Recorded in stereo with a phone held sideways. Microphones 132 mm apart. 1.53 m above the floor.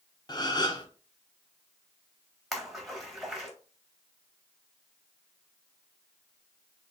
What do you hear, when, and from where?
0.3 s a gasp: 35° left (ahead or behind), 0.7 m
2.5 s a splash: centre (ahead or behind), 1.3 m